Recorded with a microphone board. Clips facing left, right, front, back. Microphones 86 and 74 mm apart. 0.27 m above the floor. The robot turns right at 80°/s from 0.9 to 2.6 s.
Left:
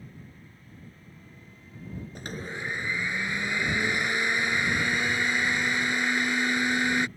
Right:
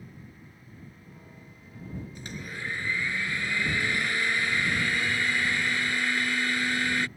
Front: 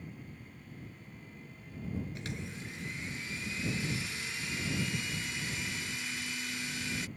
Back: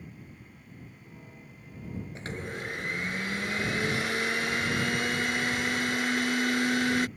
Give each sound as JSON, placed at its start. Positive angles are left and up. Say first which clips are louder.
{"t": 2.1, "sound": "a blender", "louder": "left 3 dB, back 5 dB", "azimuth_deg": 125}